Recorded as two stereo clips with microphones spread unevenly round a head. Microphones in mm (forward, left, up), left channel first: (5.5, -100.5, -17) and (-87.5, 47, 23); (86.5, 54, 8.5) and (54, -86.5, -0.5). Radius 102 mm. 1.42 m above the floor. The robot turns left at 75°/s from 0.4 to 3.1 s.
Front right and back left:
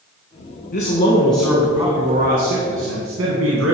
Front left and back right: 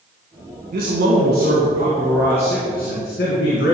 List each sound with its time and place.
0.7 s a man speaking: 80° right, 1.8 m; by 3.8 s 105° left, 1.8 m